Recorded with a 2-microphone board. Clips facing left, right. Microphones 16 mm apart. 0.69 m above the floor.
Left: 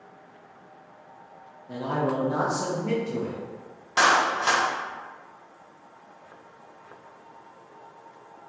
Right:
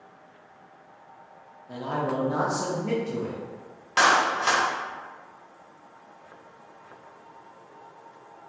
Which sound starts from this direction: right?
A clap, at 4.0 s.